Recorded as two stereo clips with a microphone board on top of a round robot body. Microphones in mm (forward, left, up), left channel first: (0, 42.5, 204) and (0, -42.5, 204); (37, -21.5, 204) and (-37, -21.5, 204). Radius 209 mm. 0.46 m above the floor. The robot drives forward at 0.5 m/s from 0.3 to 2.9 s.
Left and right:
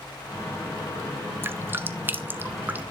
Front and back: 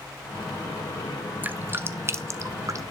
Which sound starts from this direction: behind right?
Dripping, at 1.4 s.